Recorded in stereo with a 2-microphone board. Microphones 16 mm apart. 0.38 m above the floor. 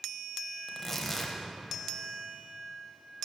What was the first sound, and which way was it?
Tearing paper, 20° left (ahead or behind).